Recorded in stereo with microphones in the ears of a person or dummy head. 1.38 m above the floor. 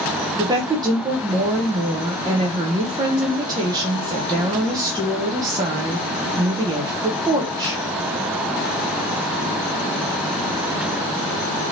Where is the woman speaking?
20° right (ahead or behind), 0.6 m.